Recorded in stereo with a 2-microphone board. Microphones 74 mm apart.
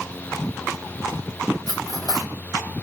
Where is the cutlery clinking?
55° left (ahead or behind), 1.2 m.